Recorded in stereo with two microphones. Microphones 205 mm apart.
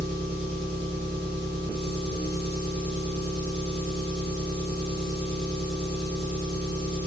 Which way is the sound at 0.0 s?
50° left (ahead or behind).